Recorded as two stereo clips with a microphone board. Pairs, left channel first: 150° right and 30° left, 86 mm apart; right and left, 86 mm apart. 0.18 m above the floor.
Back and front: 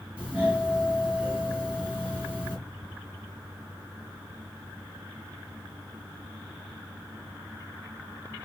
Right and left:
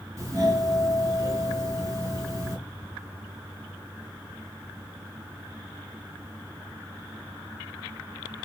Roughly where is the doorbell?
Left.